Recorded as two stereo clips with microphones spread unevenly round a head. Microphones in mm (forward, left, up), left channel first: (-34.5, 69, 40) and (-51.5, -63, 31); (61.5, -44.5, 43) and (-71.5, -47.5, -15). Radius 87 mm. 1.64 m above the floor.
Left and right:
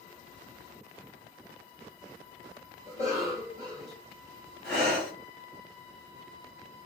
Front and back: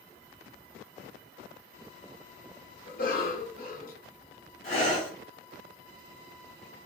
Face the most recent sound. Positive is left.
turn(degrees=-5)